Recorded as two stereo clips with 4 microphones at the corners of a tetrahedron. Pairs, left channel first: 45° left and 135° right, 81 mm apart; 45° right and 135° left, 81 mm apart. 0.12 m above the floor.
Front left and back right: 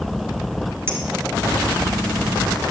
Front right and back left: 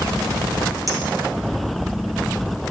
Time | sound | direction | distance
0.9 | a clink | 170° left | 1.6 m